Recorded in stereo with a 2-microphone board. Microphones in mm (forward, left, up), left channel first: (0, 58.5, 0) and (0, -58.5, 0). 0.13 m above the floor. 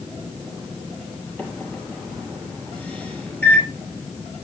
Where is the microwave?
15° left (ahead or behind), 3 m.